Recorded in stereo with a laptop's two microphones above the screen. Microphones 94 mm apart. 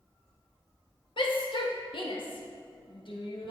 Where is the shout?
65° left (ahead or behind), 1.3 m.